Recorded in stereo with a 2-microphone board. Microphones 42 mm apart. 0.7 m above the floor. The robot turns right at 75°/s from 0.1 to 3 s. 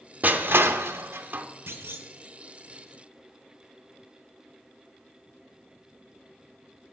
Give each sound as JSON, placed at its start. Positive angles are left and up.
{"t": 0.2, "sound": "crushing", "side_deg": -45, "distance_m": 0.9}
{"t": 1.7, "sound": "a clunk", "azimuth_deg": -100, "distance_m": 1.3}